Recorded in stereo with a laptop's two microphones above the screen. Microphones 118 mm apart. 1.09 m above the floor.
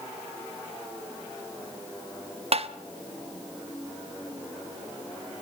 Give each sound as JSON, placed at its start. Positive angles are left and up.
{"t": 2.5, "sound": "tapping", "side_deg": -60, "distance_m": 0.7}